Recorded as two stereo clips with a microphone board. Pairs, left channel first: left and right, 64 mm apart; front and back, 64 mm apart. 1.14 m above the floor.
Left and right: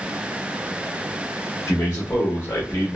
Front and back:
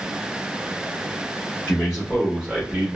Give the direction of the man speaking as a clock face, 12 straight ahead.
10 o'clock.